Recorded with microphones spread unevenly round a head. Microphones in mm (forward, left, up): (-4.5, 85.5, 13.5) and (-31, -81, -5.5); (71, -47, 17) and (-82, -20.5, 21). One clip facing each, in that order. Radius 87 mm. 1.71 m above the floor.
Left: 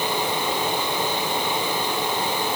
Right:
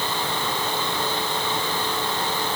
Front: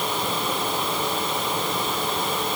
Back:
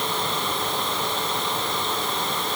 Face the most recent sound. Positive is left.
No sound to turn to.